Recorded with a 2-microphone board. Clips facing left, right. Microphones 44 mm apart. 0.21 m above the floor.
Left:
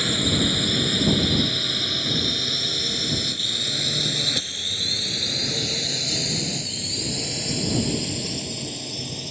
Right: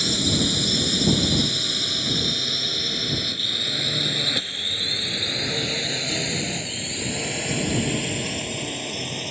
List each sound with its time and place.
0.0 s a drone: 20° left (ahead or behind); by 9.3 s 40° right (ahead or behind)